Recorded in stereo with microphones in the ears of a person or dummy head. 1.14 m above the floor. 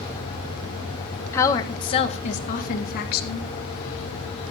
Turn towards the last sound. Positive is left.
turn(degrees=60)  # may be behind; listen again after turning